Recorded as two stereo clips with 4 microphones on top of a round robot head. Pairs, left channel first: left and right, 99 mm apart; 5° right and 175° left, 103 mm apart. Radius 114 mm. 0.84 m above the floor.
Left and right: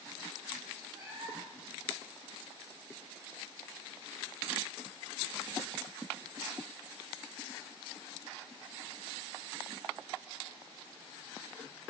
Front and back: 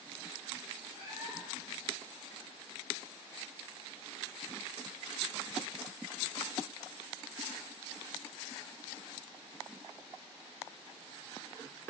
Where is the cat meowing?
145° right, 5 m.